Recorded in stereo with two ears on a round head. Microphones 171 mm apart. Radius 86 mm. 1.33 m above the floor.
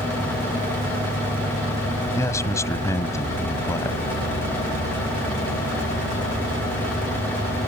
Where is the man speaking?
15° left (ahead or behind).